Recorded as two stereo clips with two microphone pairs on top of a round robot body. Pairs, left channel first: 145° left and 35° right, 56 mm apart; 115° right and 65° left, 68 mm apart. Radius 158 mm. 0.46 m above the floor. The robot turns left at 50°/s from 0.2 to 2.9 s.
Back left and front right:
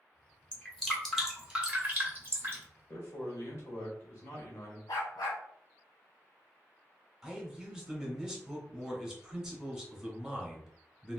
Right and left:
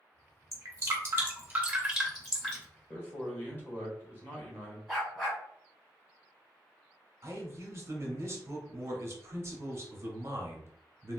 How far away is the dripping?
About 1.5 m.